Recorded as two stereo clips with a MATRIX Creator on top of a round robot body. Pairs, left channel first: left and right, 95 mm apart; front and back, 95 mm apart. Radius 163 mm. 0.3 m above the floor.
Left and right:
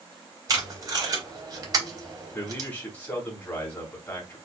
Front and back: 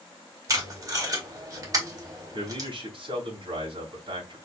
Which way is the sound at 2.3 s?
165° left.